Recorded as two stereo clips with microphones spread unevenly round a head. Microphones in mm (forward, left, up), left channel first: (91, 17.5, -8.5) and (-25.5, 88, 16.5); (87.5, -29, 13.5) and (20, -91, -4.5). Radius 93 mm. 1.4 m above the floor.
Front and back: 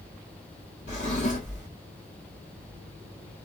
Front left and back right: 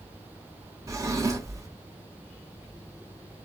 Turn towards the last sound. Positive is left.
turn(degrees=-80)